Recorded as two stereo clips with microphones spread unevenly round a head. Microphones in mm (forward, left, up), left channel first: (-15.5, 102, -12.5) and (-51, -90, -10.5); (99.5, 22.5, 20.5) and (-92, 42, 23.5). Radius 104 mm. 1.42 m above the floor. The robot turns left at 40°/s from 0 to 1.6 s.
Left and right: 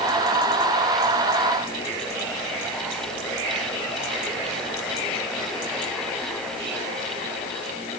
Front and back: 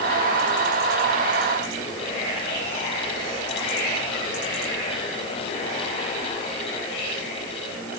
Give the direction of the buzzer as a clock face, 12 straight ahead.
No buzzer in this recording.